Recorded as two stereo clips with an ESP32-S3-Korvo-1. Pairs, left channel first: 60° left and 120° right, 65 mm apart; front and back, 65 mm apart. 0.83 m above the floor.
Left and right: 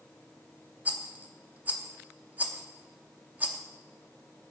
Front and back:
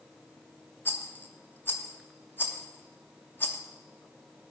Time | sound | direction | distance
0.8 | a rattle | 55° right | 1.0 m